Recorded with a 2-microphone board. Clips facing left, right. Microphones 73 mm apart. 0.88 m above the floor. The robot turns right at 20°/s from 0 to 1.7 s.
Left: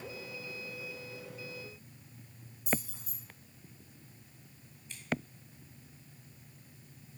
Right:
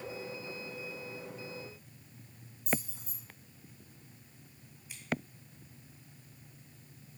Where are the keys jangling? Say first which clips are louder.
Even; 75° left (ahead or behind), 5 m.